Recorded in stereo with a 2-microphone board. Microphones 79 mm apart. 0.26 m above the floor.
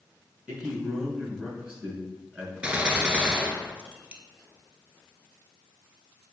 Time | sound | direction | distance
0.5 | a man speaking | 15° right (ahead or behind) | 3.5 m
2.6 | a gunshot | 15° right (ahead or behind) | 0.9 m